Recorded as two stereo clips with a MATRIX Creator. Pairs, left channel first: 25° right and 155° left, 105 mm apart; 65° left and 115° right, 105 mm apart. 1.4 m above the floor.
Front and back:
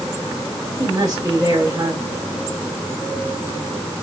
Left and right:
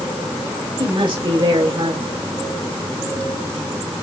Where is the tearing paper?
I don't hear tearing paper.